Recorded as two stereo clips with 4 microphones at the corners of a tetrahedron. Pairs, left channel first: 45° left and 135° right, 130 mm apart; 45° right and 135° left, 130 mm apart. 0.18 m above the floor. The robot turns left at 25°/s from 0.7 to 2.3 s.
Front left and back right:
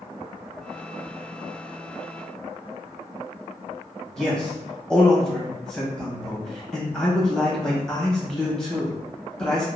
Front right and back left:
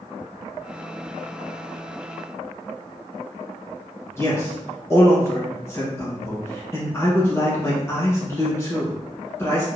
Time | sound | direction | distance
4.2 | a man speaking | 30° right | 1.1 m